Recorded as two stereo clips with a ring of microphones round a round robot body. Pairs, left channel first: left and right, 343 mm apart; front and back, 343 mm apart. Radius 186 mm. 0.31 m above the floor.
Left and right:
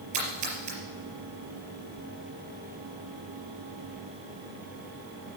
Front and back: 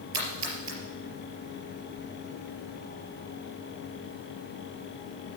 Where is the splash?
130° right, 4.5 m.